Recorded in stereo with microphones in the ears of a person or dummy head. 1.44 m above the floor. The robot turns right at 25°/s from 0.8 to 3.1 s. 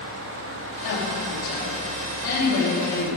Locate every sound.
0.8 s a woman speaking: 70° left, 3.5 m; by 3.1 s 125° left, 3.5 m